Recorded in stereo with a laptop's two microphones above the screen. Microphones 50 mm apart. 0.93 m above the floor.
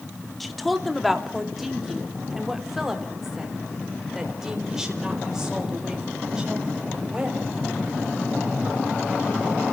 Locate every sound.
0.4 s a woman speaking: 5° left (ahead or behind), 2 m; by 7.4 s 10° right (ahead or behind), 6 m